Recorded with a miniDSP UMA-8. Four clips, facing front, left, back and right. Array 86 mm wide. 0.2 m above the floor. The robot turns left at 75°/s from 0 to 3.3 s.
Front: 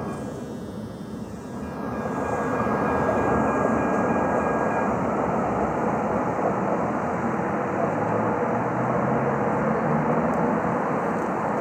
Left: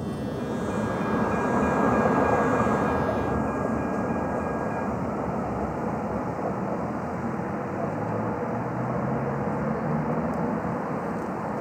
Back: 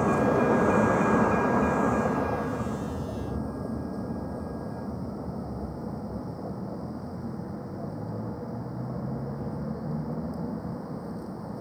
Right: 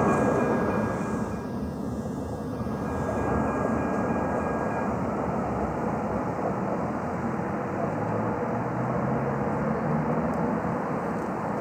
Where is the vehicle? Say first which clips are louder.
Right 8 dB, back 9 dB; 115° right; by 11.6 s straight ahead.